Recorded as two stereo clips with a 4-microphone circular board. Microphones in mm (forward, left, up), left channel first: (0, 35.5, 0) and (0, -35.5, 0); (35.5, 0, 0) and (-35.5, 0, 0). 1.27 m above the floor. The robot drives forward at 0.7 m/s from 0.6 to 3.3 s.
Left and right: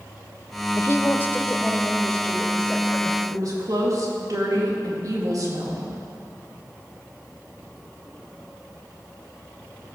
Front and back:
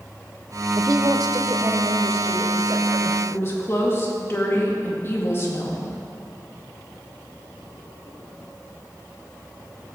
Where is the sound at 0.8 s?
140° left, 0.6 m; by 3.2 s 170° left, 2 m.